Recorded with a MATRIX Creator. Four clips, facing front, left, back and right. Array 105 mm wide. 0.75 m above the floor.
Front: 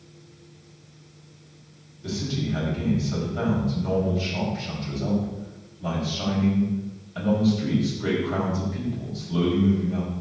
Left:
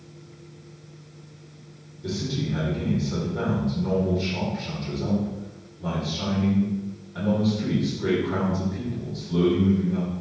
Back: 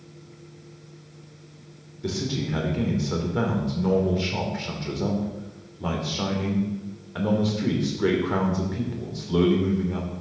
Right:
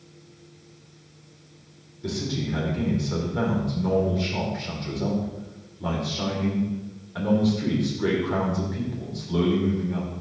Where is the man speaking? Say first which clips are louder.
Even, back 1 dB; 165° right, 2.5 m.